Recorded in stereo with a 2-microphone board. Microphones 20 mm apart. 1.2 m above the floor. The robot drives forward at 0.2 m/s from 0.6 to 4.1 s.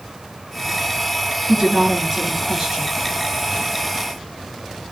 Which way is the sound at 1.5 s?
30° right (ahead or behind).